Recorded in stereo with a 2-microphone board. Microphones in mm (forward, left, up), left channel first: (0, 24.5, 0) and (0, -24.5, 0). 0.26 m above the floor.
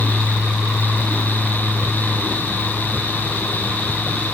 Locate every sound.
Only background noise.